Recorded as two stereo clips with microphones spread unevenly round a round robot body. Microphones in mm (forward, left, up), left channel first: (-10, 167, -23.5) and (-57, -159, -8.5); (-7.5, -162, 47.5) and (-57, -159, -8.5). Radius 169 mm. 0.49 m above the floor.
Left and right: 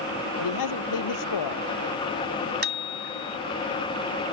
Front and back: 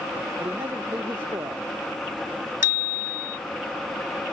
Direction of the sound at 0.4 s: 110° left.